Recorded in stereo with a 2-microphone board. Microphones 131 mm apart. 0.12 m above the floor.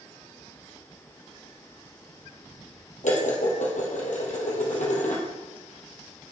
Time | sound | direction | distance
3.0 | dishes clattering | 70° left (ahead or behind) | 2 m